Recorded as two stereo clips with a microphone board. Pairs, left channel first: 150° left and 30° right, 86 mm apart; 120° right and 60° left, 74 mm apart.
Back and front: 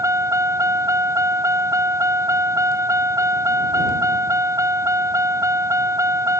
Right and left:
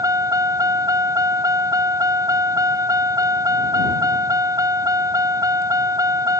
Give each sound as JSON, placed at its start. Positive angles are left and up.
{"t": 0.0, "sound": "a vehicle", "azimuth_deg": 25}